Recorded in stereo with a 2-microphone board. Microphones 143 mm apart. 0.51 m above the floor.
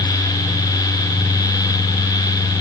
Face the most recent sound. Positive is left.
No sound to turn to.